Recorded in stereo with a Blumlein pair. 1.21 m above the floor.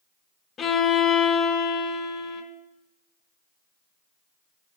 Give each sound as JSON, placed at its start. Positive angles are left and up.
{"t": 0.6, "sound": "a violin", "azimuth_deg": 20, "distance_m": 0.7}